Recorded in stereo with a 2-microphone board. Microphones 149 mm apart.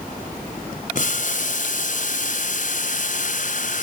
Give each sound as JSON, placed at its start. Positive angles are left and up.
{"t": 0.9, "sound": "boiling", "side_deg": 60, "distance_m": 1.0}